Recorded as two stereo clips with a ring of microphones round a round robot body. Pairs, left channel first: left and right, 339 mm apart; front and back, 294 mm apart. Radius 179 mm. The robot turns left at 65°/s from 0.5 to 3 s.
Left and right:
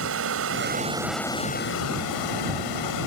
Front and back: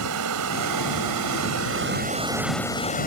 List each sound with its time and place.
0.0 s running water: 140° right; by 3.1 s 60° left